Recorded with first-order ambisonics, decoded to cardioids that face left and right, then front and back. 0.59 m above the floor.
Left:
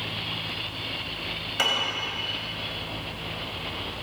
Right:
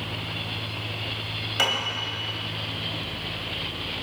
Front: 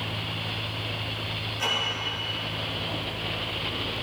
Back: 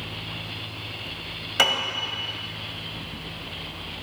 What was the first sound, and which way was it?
A piano, 175° right.